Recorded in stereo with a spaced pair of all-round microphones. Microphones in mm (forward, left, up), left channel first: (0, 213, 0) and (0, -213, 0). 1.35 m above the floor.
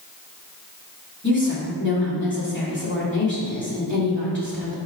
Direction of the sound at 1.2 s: 25° left (ahead or behind).